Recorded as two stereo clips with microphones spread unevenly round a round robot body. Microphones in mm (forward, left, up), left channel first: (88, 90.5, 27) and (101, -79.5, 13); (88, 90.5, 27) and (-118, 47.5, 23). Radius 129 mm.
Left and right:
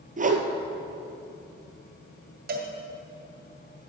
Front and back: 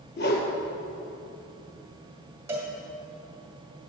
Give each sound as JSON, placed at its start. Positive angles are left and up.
{"t": 0.2, "sound": "a whoosh", "azimuth_deg": -40, "distance_m": 1.4}
{"t": 2.5, "sound": "a cowbell", "azimuth_deg": -90, "distance_m": 1.6}